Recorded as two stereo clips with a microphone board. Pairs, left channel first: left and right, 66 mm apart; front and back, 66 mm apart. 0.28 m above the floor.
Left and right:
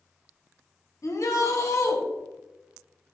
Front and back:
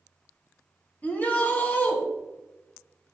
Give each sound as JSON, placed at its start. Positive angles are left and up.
{"t": 1.0, "sound": "a shout", "azimuth_deg": 60, "distance_m": 2.5}